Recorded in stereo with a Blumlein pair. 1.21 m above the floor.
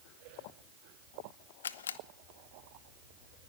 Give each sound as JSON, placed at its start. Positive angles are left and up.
{"t": 1.6, "sound": "a camera shutter", "azimuth_deg": 65, "distance_m": 0.7}